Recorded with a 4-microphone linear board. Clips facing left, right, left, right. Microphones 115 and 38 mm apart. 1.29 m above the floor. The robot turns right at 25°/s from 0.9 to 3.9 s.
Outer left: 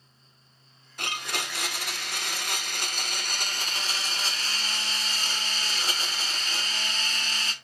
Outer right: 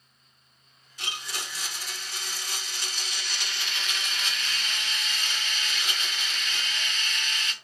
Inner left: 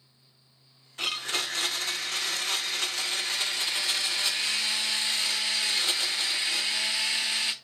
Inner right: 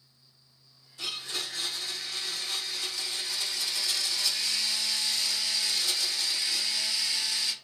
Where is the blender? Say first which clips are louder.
Outer left 5 dB, inner left 5 dB; 65° left, 0.5 m; by 7.5 s 140° left, 0.5 m.